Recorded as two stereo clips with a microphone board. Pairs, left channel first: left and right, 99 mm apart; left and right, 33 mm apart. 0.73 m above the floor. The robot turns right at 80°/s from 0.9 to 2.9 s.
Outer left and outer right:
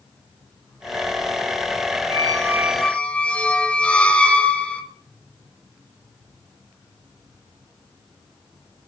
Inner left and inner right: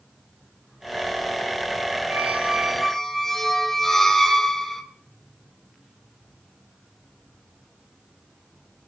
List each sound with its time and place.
2.1 s a squeak: 50° right, 1.1 m; by 4.8 s 10° left, 1.1 m